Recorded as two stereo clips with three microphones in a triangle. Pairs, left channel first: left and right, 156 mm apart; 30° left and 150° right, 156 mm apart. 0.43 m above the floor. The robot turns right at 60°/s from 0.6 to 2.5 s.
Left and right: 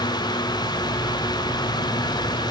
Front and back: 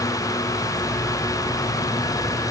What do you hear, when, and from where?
Only background noise.